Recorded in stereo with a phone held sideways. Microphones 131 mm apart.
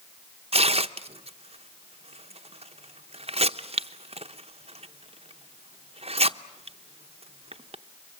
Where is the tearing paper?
50° right (ahead or behind), 0.7 m.